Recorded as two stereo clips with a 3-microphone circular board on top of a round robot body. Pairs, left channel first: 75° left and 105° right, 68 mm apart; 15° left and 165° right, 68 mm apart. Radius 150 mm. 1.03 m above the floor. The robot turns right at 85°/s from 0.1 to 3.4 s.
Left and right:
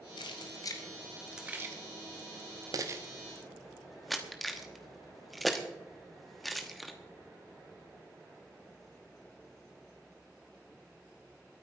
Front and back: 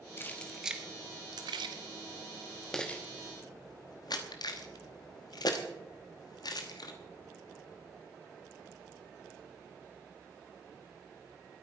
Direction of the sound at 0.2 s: 70° left.